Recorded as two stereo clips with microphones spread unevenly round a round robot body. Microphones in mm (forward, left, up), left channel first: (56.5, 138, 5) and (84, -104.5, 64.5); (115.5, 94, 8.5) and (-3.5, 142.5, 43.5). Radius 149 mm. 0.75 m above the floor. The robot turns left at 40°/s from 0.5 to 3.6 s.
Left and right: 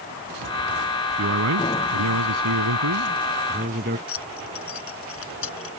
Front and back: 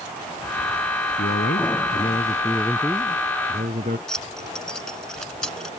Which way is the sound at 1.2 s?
45° right.